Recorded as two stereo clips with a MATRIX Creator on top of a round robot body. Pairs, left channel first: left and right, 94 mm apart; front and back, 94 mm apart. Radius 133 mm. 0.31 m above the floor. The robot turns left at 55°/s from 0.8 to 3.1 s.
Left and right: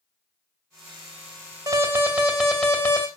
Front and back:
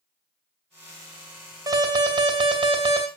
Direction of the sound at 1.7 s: 140° right.